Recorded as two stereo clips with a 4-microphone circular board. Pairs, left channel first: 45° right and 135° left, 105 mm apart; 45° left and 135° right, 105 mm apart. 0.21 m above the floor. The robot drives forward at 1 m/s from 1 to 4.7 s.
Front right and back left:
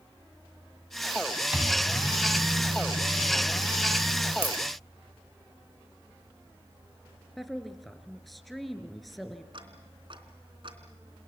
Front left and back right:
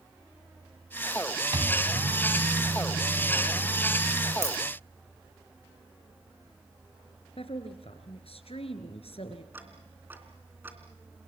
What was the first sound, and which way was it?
A microwave, 155° right.